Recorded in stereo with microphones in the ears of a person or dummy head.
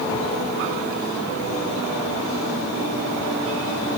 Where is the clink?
No clink in this recording.